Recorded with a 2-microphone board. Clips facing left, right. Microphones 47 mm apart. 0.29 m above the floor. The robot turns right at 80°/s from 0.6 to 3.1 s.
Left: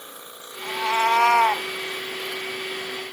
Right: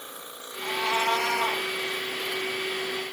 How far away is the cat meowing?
About 0.8 m.